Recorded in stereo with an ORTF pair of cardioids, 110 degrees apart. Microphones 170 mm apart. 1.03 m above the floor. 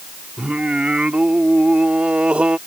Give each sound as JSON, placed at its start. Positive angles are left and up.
{"t": 0.4, "sound": "singing", "azimuth_deg": -5}